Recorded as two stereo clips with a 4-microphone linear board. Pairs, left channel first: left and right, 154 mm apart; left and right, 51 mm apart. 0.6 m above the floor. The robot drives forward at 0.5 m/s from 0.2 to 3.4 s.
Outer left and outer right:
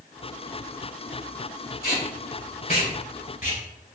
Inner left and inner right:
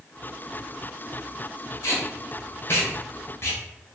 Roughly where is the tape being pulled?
Left.